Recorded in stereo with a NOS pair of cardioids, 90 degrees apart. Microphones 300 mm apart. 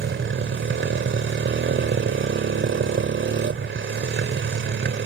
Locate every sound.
0.0 s a motorcycle: 40° right